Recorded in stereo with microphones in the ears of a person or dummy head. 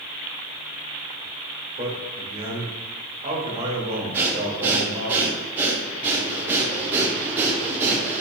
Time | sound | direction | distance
1.8 | a man speaking | 45° right (ahead or behind) | 1.3 m
4.1 | breathing | 20° right (ahead or behind) | 0.5 m